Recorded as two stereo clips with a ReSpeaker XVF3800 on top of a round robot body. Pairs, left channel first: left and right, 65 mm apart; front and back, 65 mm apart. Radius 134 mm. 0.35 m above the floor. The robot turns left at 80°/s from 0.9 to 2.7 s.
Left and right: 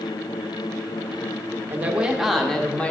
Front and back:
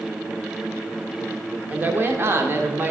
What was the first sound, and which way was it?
A woman speaking, 130° right.